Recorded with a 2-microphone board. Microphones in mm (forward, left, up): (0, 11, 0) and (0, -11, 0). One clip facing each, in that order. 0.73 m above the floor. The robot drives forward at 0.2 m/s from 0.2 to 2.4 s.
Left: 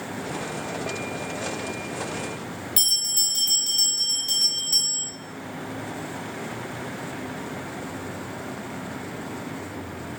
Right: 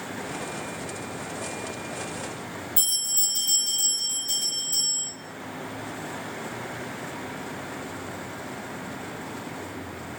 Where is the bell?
50° left (ahead or behind), 0.7 m.